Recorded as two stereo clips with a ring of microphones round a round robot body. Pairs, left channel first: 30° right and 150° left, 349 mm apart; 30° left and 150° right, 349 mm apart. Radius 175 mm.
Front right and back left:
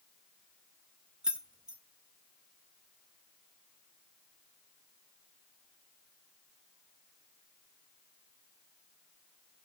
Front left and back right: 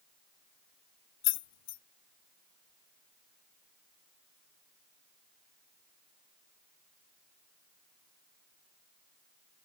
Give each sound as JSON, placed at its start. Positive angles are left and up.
{"t": 1.2, "sound": "keys jangling", "azimuth_deg": 65, "distance_m": 0.5}